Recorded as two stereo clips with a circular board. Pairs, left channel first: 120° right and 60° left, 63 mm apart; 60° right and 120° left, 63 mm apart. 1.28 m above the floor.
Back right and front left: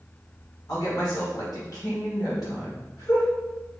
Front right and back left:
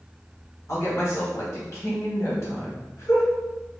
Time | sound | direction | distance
0.7 | a woman speaking | 105° right | 1.5 m